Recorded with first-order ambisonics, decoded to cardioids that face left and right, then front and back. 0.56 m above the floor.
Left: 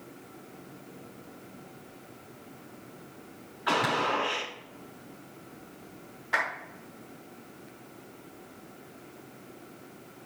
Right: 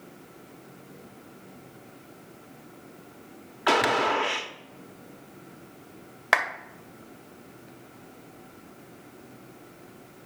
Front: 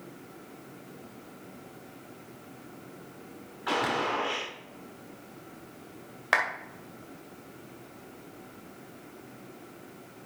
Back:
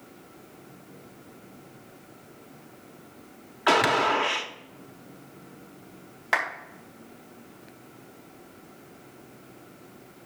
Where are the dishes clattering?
No dishes clattering in this recording.